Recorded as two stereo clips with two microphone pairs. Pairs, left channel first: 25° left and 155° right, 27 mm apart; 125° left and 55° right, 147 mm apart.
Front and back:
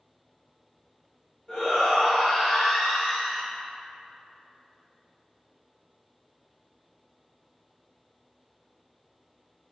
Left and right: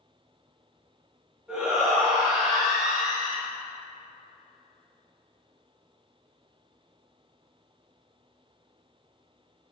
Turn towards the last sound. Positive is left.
turn(degrees=5)